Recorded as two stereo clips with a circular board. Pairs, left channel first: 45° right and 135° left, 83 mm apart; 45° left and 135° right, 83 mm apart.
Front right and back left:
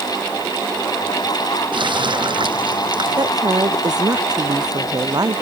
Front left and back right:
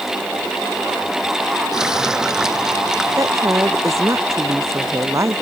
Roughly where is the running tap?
Behind left.